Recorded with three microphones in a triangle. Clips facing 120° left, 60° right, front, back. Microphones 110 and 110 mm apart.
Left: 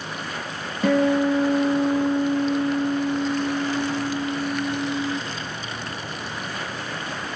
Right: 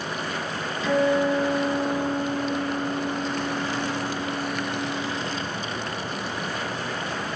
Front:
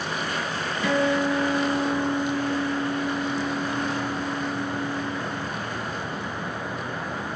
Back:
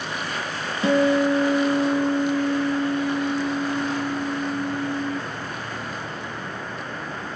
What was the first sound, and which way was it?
A guitar, 125° left.